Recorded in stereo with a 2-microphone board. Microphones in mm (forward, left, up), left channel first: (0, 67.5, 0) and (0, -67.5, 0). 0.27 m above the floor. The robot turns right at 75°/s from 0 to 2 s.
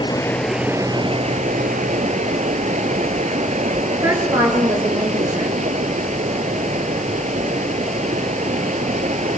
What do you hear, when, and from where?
0.0 s running water: 145° left, 1.2 m; by 9.4 s 65° right, 1.2 m
3.9 s a woman speaking: 20° right (ahead or behind), 5 m